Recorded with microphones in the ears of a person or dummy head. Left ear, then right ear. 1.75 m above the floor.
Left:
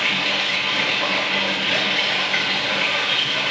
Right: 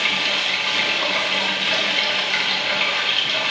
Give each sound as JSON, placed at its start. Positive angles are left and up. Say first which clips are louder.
{"t": 0.0, "sound": "running water", "louder": "even", "side_deg": -25, "distance_m": 1.8}